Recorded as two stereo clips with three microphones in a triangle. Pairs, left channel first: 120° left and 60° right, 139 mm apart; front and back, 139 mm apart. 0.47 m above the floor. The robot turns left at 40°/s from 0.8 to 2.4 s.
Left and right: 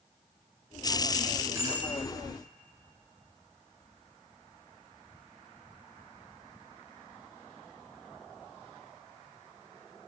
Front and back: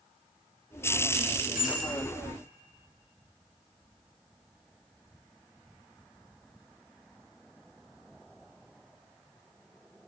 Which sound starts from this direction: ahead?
A bicycle bell, at 1.6 s.